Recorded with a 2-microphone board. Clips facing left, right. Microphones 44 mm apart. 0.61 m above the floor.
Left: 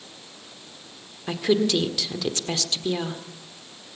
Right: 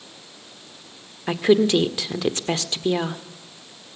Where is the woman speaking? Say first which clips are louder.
Right 5 dB; 25° right (ahead or behind), 1.7 m.